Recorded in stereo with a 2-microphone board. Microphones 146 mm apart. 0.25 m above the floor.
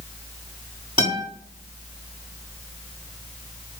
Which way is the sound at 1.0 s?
35° right (ahead or behind).